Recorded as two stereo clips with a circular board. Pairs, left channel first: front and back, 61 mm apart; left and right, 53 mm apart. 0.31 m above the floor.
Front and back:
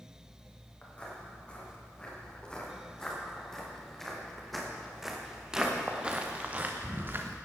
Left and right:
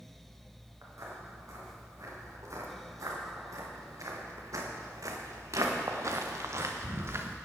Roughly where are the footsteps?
Right.